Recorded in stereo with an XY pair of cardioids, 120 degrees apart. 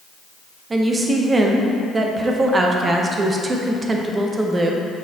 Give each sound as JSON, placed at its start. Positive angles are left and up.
{"t": 0.7, "sound": "a woman speaking", "azimuth_deg": -25, "distance_m": 0.8}